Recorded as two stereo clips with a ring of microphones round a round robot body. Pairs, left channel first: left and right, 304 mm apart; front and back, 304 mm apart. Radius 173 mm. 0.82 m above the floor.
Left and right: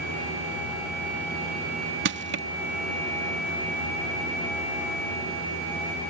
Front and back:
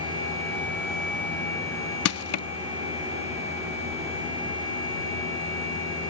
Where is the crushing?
35° right.